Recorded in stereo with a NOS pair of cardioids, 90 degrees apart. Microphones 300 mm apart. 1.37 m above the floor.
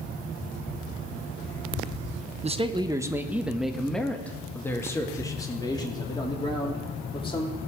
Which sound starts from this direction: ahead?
A man speaking, at 2.4 s.